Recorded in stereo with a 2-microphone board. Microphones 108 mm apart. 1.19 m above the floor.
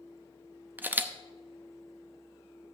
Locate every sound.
0.8 s a camera shutter: 15° right (ahead or behind), 0.7 m